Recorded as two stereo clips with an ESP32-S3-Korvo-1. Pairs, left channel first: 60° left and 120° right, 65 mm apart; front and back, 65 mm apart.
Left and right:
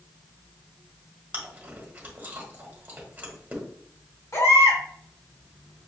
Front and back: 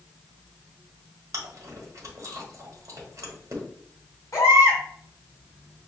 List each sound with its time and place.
1.3 s chewing: straight behind, 1.4 m
4.3 s a baby crying: 35° left, 1.9 m